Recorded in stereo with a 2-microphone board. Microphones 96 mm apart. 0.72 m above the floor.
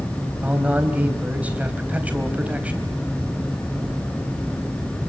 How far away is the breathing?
I don't hear breathing.